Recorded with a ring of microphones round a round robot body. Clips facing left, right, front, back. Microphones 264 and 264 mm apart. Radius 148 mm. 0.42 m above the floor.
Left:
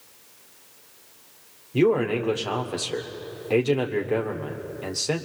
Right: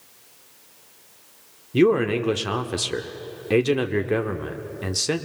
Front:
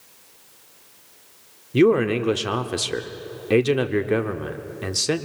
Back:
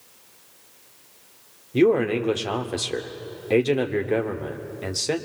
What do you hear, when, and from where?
1.7 s a man speaking: 55° right, 1.2 m